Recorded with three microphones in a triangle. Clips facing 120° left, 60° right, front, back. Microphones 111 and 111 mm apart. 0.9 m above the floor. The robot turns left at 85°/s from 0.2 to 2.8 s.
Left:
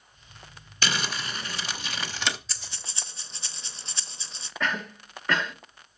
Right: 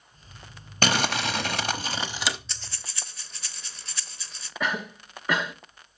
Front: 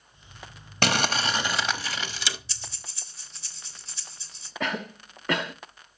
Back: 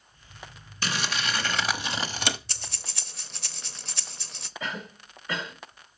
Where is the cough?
20° left, 1.3 m.